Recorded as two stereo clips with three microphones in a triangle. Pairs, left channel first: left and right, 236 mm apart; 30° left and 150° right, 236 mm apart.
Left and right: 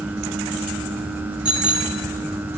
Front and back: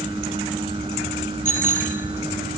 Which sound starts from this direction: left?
A bicycle bell, at 1.4 s.